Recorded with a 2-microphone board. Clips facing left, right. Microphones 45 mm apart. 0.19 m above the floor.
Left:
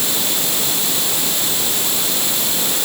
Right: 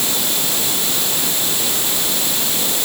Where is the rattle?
No rattle in this recording.